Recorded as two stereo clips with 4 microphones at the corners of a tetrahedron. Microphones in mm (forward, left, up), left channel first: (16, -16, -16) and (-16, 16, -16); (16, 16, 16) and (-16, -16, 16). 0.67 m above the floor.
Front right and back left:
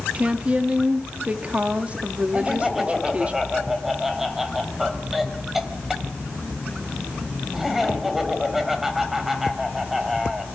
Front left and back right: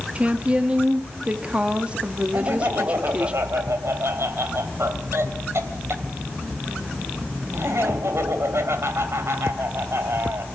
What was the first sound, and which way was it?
A woman speaking, straight behind.